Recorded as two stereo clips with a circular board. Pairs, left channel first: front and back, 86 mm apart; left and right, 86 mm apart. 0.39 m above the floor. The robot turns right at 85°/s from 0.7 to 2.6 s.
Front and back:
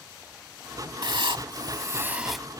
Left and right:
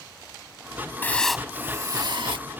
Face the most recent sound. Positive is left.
turn(degrees=-70)